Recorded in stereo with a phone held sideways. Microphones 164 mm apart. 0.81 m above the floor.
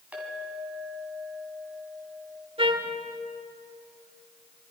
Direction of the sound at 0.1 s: 10° right (ahead or behind).